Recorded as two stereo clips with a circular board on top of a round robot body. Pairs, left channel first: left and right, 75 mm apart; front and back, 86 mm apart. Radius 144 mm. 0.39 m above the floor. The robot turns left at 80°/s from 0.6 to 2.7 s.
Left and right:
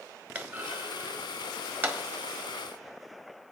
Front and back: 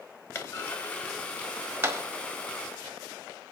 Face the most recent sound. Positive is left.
turn(degrees=160)